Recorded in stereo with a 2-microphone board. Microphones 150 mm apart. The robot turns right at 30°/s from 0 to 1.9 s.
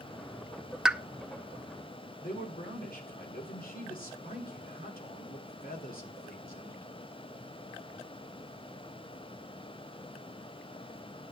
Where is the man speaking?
75° left (ahead or behind), 3 m.